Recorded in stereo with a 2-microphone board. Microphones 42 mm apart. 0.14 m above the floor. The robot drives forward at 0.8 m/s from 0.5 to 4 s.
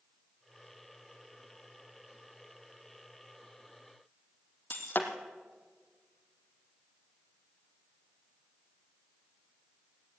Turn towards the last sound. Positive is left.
turn(degrees=50)  # may be behind; listen again after turning